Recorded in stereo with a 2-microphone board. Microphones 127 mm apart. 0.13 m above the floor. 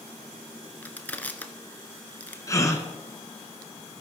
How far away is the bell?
No bell in this recording.